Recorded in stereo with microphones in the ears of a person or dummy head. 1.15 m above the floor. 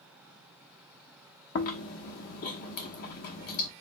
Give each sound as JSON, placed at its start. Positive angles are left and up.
{"t": 1.6, "sound": "chewing", "side_deg": 45, "distance_m": 0.9}